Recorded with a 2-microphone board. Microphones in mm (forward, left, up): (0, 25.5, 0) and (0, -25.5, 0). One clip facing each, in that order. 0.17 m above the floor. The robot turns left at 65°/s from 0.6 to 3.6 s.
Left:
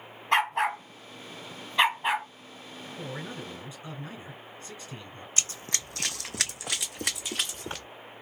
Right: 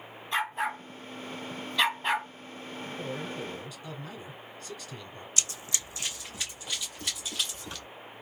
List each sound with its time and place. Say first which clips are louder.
0.3 s a dog barking: left 5 dB; 70° left (ahead or behind), 1.5 m; by 2.3 s 5° right (ahead or behind), 1.5 m
3.0 s a man speaking: right 1 dB; 80° left, 1.8 m; by 5.3 s 35° left, 1.8 m
5.4 s running footsteps: left 2 dB; 35° left (ahead or behind), 0.6 m; by 7.8 s 55° left (ahead or behind), 1.2 m